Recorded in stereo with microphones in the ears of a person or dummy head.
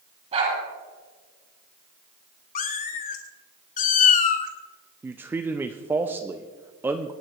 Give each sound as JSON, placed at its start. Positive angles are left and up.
{"t": 0.3, "sound": "a dog barking", "side_deg": -35, "distance_m": 8.5}
{"t": 2.5, "sound": "a cat meowing", "side_deg": 50, "distance_m": 1.4}
{"t": 5.0, "sound": "a man speaking", "side_deg": -15, "distance_m": 0.7}